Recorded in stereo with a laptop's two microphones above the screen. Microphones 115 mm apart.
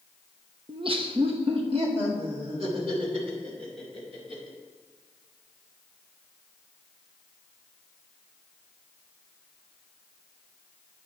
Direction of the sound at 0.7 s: 50° right (ahead or behind).